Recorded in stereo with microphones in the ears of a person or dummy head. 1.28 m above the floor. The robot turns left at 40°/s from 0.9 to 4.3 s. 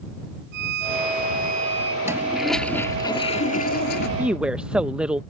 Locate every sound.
0.5 s a violin: 110° right; by 1.9 s 155° right
2.0 s a toilet flushing: 165° right; by 4.1 s 115° left
4.2 s a woman speaking: 10° right (ahead or behind); by 5.2 s 5° right (ahead or behind)